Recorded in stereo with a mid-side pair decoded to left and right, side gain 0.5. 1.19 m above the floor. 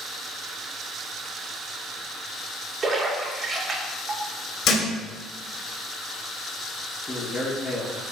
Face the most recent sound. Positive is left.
turn(degrees=25)